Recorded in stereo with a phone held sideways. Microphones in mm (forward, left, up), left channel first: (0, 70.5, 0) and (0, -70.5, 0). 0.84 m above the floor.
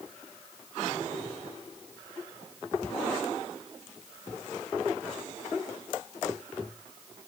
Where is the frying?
No frying in this recording.